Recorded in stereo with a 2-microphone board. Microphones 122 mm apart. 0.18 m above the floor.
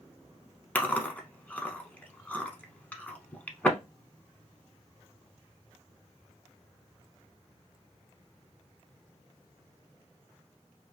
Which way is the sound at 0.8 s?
15° left (ahead or behind).